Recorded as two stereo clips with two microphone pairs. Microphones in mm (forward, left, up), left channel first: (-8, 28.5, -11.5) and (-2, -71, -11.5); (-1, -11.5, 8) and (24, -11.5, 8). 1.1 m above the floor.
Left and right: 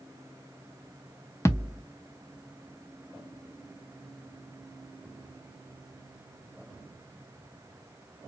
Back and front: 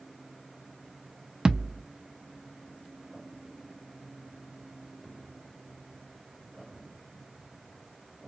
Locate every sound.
1.4 s a thud: 45° left, 0.6 m